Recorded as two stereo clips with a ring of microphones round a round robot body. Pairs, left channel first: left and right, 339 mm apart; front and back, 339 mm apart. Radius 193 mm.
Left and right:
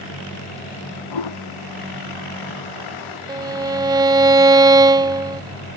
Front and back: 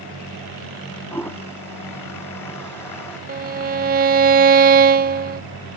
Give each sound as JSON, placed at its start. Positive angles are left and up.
{"t": 1.1, "sound": "a toilet flushing", "azimuth_deg": 85}
{"t": 3.3, "sound": "a violin", "azimuth_deg": -155}